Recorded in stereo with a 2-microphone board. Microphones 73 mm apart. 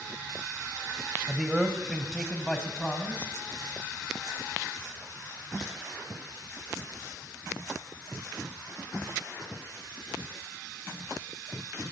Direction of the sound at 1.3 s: 10° right (ahead or behind).